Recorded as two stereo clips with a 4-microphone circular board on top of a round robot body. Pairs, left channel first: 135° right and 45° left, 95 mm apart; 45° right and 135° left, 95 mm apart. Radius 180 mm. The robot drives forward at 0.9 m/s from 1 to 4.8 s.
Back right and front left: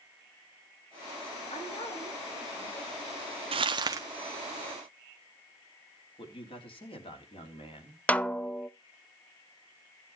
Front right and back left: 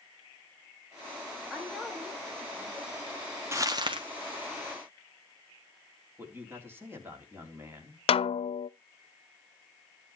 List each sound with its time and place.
1.5 s a woman speaking: 135° right, 5.5 m; by 2.9 s 145° right, 6.5 m
3.5 s crumpling: 70° left, 0.9 m; by 4.0 s 105° left, 0.9 m
6.2 s a man speaking: 160° right, 3.5 m
8.1 s a snare drum: 60° right, 0.6 m